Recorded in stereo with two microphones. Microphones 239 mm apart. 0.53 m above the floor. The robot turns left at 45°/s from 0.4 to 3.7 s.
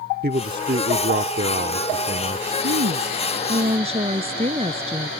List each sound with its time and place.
0.2 s a man speaking: 60° right; by 2.5 s 155° right
2.6 s a woman speaking: 105° right; by 5.1 s 155° right